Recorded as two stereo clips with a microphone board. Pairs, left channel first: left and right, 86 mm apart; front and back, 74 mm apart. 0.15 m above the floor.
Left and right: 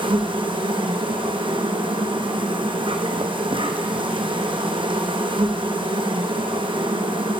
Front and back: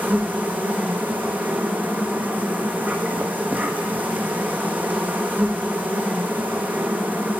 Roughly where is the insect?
Behind right.